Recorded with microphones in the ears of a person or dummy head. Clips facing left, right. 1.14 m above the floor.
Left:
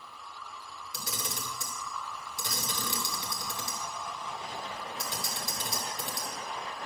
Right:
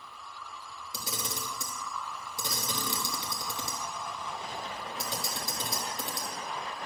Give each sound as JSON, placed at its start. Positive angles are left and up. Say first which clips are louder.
{"t": 0.9, "sound": "a camera shutter", "louder": "right 1 dB", "side_deg": -25, "distance_m": 1.2}